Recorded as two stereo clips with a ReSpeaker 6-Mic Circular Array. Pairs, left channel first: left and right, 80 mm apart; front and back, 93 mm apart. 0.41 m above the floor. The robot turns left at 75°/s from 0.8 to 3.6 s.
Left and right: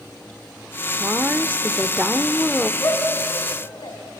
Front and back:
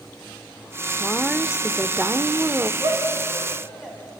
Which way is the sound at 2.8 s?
145° left.